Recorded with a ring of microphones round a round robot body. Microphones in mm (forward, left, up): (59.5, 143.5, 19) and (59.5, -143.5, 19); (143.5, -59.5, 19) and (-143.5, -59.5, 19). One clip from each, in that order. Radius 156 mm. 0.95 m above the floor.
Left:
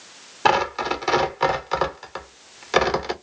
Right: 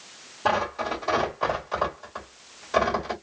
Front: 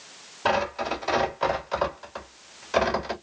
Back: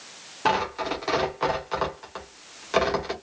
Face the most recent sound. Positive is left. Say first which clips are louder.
# left 5 dB, even
turn(degrees=100)